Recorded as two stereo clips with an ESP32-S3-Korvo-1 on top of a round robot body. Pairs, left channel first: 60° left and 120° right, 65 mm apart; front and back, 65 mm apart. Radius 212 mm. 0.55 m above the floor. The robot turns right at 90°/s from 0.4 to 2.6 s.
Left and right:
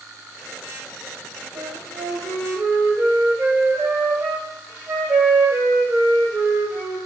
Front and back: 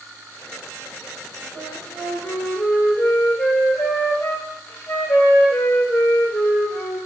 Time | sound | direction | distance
1.6 | a flute | 150° right | 0.9 m